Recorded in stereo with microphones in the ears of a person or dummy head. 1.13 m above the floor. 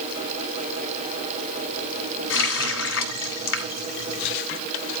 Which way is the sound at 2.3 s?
80° left.